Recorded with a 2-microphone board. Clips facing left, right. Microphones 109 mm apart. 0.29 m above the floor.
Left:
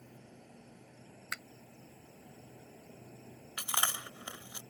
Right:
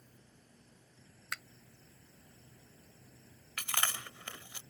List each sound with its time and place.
0.0 s an insect: 70° left (ahead or behind)
1.3 s a finger snap: centre (ahead or behind)
3.6 s chewing: 15° left (ahead or behind)